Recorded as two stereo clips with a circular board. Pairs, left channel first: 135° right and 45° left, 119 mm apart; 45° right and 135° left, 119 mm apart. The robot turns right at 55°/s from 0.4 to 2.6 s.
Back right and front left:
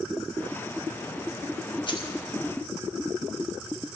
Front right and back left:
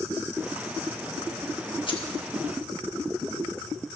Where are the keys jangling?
90° right, 1.1 m; by 2.1 s 75° right, 1.1 m.